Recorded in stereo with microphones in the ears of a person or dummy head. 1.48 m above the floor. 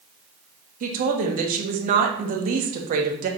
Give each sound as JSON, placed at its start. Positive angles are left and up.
{"t": 0.8, "sound": "a woman speaking", "side_deg": -45, "distance_m": 0.8}